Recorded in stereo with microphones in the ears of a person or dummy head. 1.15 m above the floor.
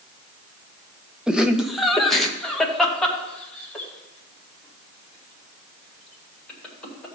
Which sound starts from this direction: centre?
Laughter, at 1.3 s.